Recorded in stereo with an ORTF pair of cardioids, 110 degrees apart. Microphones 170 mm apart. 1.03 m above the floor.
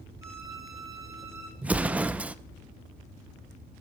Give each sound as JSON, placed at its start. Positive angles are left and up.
{"t": 0.2, "sound": "a violin", "azimuth_deg": -20, "distance_m": 3.0}
{"t": 1.6, "sound": "an explosion", "azimuth_deg": -10, "distance_m": 0.6}